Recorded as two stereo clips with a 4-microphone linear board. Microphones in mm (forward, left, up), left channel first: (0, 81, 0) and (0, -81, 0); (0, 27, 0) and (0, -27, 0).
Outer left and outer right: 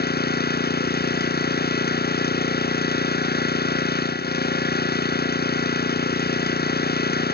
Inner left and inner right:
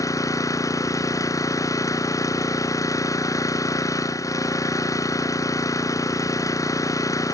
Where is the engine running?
75° left (ahead or behind).